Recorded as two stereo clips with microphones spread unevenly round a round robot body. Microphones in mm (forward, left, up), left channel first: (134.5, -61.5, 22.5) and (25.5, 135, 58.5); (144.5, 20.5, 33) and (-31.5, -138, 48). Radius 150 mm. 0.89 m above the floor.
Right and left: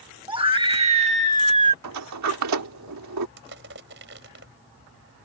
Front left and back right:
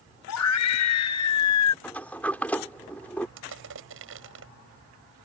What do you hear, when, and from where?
0.3 s a scream: 50° left; by 1.7 s 60° left
1.8 s a sliding door: 130° left
3.4 s crushing: 175° left